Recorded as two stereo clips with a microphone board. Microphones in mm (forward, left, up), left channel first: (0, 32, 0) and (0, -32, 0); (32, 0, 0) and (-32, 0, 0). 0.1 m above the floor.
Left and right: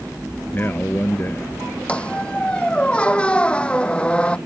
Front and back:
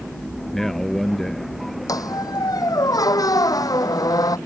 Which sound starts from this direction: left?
A man speaking, at 0.5 s.